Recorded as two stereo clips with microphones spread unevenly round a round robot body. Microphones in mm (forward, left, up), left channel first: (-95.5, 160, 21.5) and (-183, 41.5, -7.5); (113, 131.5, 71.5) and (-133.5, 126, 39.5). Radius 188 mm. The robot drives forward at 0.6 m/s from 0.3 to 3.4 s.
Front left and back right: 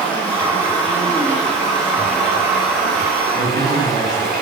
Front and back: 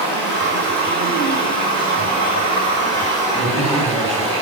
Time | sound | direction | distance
0.0 | running water | 45° right | 3 m
3.3 | a man speaking | 70° right | 3.5 m